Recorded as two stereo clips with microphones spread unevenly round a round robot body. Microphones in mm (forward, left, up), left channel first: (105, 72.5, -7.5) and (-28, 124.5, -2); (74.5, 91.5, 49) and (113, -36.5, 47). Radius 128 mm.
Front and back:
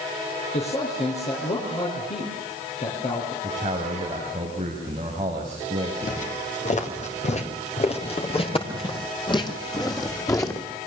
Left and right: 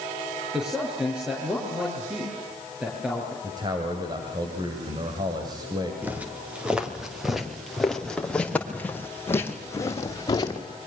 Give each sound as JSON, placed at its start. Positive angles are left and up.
{"t": 0.5, "sound": "a man speaking", "azimuth_deg": 10, "distance_m": 6.5}
{"t": 3.4, "sound": "a man speaking", "azimuth_deg": -135, "distance_m": 2.5}
{"t": 6.0, "sound": "footsteps", "azimuth_deg": 5, "distance_m": 5.0}